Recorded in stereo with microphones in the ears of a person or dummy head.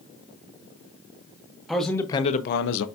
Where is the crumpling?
I don't hear crumpling.